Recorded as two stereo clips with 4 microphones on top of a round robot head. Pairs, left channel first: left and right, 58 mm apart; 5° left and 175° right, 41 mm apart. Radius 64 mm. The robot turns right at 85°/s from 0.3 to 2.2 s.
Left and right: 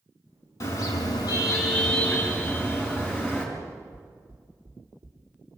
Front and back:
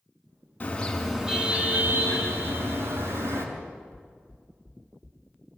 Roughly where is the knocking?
Right.